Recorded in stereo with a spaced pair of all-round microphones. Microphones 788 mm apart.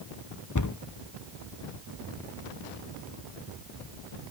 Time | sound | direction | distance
0.6 | a cupboard door | 25° left (ahead or behind) | 0.6 m